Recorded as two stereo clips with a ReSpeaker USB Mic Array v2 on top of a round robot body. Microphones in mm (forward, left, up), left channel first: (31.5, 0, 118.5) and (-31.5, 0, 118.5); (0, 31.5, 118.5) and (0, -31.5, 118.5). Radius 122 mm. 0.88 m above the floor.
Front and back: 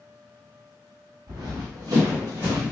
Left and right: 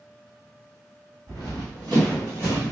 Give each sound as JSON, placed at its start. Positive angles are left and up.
{"t": 1.3, "sound": "running footsteps", "azimuth_deg": 175, "distance_m": 2.0}